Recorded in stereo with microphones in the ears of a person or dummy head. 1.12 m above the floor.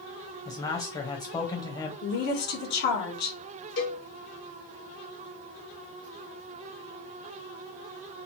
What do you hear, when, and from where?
0.5 s a man speaking: 15° left (ahead or behind), 0.8 m
2.0 s a woman speaking: 50° left (ahead or behind), 0.9 m
3.8 s a cowbell: 55° left (ahead or behind), 1.3 m